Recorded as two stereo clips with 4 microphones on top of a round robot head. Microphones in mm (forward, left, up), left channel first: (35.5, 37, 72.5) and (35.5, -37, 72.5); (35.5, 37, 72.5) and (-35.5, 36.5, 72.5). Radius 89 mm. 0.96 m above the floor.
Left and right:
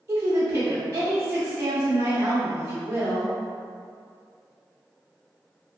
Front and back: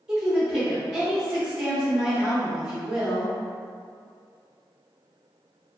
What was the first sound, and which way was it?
A woman speaking, 105° right.